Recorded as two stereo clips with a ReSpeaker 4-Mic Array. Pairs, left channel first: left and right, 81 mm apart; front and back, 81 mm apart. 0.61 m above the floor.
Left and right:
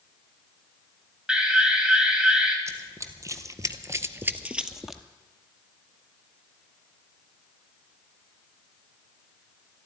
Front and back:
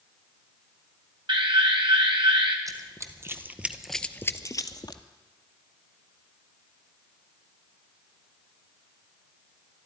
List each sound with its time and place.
1.3 s an alarm: 170° right, 2.5 m
2.7 s running footsteps: 140° right, 1.5 m; by 5.0 s straight ahead, 1.1 m